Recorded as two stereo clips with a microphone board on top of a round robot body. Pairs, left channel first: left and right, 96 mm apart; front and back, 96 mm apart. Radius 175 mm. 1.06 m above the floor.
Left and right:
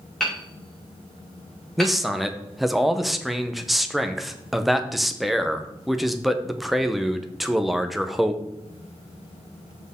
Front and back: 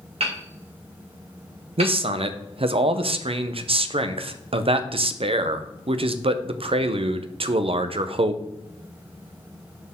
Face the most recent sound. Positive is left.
turn(degrees=180)